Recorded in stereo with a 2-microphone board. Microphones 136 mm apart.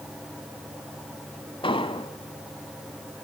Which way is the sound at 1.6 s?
40° left (ahead or behind).